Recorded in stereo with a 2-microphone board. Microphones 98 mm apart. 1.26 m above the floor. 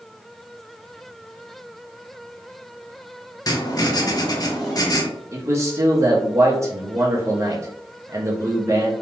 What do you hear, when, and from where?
3.5 s writing: 40° left (ahead or behind), 0.6 m
5.3 s a man speaking: 30° right (ahead or behind), 0.7 m